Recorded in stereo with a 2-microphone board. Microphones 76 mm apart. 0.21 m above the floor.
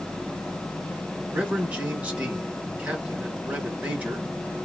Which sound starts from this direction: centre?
A man speaking, at 1.3 s.